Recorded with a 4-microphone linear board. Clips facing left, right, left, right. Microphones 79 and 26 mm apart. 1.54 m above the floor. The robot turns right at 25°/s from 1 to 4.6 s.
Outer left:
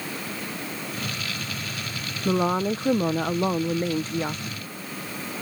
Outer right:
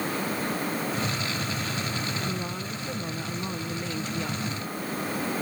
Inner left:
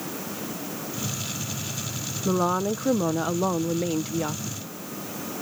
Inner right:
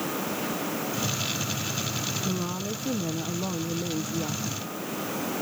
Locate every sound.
2.2 s a woman speaking: 95° left; by 4.6 s 150° left